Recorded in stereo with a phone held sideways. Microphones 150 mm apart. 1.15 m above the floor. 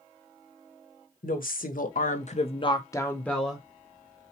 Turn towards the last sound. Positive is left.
turn(degrees=0)  # may be behind; listen again after turning